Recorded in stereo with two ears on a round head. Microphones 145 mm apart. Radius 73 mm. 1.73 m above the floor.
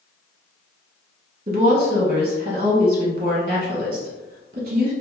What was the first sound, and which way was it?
A woman speaking, 40° right (ahead or behind).